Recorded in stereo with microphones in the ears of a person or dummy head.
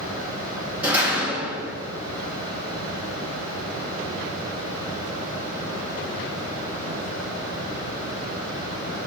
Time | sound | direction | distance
0.8 | a door slam | 15° right (ahead or behind) | 1.9 m